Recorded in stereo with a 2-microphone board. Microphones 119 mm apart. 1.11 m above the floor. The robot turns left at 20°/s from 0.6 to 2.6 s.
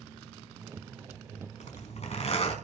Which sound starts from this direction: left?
A zipper, at 1.6 s.